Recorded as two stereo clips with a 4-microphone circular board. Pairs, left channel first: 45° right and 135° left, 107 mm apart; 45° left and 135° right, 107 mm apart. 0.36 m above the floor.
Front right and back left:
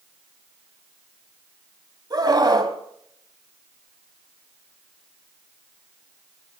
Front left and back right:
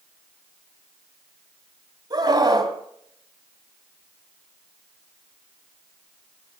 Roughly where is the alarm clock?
I don't hear an alarm clock.